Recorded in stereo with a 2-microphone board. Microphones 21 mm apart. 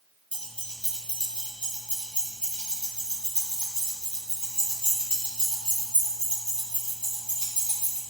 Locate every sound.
0.3 s keys jangling: 80° left, 3.5 m; by 8.0 s 85° left, 8 m